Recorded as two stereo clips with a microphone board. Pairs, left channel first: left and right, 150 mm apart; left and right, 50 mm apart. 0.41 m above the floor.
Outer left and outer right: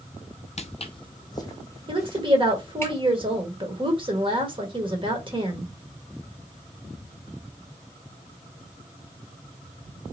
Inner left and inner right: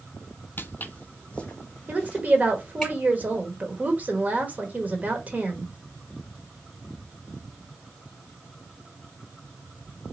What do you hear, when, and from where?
0.6 s footsteps: 50° left (ahead or behind), 0.6 m; by 2.9 s 15° left (ahead or behind), 2.5 m
1.9 s a woman speaking: 35° right (ahead or behind), 1.5 m